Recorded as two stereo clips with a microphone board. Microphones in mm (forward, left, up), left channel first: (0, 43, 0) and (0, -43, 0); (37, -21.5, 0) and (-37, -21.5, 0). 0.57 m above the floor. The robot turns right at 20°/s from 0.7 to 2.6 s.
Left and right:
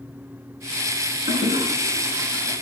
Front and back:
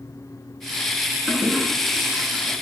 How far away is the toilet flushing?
About 5.5 m.